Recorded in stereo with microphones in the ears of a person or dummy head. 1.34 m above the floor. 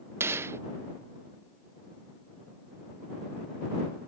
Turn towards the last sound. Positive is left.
turn(degrees=-15)  # may be behind; listen again after turning